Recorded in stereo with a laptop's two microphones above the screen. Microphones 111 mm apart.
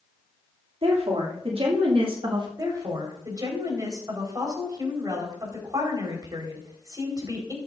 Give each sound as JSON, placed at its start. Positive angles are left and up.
{"t": 0.8, "sound": "a woman speaking", "side_deg": -65, "distance_m": 2.5}
{"t": 2.6, "sound": "a woman speaking", "side_deg": -35, "distance_m": 4.0}